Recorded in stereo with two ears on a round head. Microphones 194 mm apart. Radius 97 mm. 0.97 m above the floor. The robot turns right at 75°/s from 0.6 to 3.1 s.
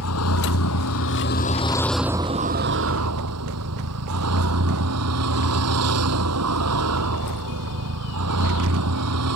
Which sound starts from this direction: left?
A vehicle, at 0.0 s.